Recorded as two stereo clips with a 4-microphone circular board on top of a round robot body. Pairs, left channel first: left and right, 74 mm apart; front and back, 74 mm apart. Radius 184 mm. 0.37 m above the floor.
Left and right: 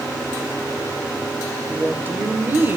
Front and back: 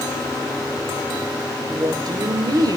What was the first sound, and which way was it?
A woman speaking, 155° right.